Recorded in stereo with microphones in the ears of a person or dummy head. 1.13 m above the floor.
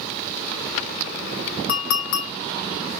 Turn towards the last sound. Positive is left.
turn(degrees=65)  # may be behind; listen again after turning